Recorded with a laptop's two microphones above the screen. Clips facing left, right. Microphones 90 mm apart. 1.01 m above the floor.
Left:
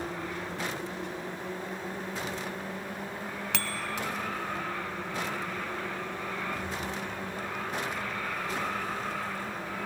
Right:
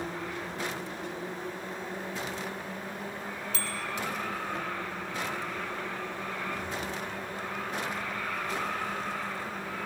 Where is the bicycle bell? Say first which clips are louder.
Left 2 dB; 65° left (ahead or behind), 4.5 m.